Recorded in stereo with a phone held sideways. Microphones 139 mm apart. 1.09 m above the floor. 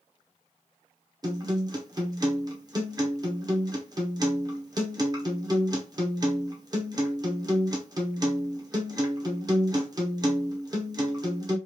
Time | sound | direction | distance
1.2 | a guitar | 30° right (ahead or behind) | 0.8 m